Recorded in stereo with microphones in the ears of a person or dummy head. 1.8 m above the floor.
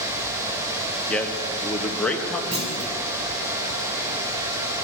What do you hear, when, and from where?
1.1 s a man speaking: 5° left (ahead or behind), 1.3 m
2.5 s a clunk: 30° right (ahead or behind), 3 m